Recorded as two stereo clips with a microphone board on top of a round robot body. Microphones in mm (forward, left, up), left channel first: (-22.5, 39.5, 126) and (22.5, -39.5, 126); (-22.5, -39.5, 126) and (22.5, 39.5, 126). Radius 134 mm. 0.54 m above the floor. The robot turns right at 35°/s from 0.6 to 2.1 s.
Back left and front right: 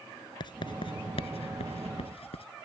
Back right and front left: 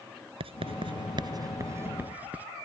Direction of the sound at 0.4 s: 80° left.